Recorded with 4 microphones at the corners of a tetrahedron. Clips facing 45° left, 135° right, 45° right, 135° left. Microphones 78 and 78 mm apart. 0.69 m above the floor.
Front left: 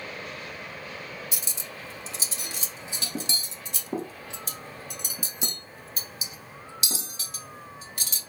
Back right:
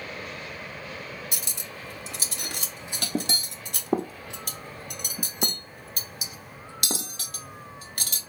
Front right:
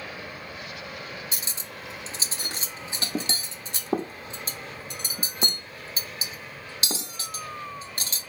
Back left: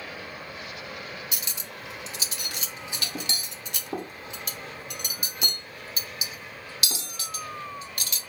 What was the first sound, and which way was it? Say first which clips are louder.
Cutlery clinking: back right 1 dB, even; 105° right.